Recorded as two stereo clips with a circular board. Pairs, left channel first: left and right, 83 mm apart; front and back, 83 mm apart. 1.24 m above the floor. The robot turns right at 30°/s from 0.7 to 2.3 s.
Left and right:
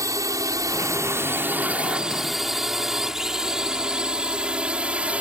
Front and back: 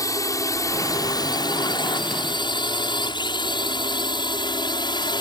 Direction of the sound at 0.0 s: 40° right.